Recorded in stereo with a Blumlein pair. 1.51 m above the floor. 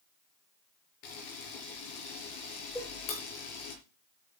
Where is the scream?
I don't hear a scream.